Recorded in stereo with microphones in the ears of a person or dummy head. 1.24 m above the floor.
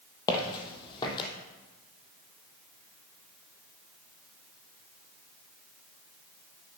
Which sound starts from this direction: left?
Footsteps, at 0.3 s.